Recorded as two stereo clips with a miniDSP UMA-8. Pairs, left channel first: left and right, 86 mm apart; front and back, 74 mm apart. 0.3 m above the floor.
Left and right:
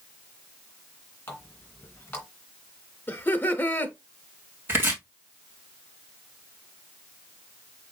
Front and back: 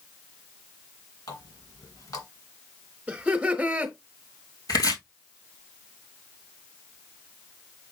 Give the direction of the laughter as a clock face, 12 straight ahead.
8 o'clock.